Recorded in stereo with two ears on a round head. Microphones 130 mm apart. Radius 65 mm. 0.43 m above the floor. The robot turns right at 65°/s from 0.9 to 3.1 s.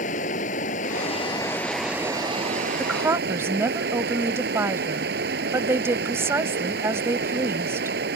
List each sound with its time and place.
0.0 s running water: 125° left; by 8.2 s 95° right
2.8 s a woman speaking: centre (ahead or behind); by 8.0 s 20° right (ahead or behind)